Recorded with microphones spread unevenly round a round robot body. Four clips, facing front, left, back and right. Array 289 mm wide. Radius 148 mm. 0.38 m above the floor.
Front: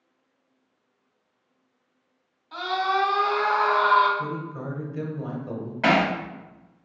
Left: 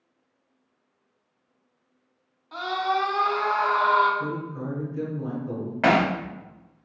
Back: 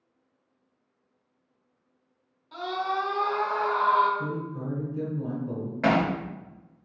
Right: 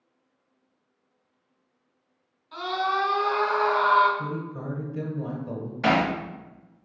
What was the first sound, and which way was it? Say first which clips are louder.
A scream: left 1 dB, front 4 dB; 140° left.